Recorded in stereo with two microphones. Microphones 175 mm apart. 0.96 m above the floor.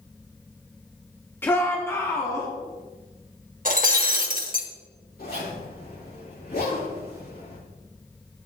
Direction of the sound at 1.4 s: 10° left (ahead or behind).